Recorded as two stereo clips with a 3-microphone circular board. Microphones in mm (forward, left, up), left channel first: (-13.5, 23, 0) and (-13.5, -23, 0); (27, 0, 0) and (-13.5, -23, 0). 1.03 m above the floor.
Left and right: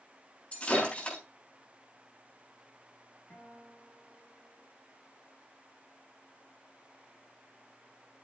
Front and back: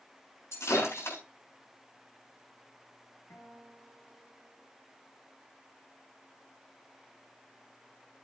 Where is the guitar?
40° left, 5.5 m.